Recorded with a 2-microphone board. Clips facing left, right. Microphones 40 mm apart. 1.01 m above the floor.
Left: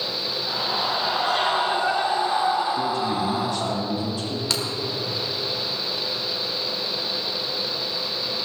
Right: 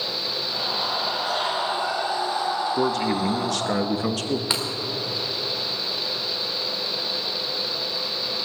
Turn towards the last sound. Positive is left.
turn(degrees=-20)  # may be behind; listen again after turning